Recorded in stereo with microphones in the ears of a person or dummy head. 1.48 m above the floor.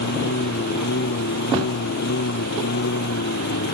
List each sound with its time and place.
0.0 s a lawn mower: 45° left (ahead or behind)